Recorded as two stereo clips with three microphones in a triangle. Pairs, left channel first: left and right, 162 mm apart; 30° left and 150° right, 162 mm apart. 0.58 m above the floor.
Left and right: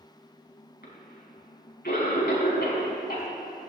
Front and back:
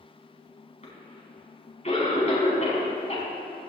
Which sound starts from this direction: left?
A cough, at 0.8 s.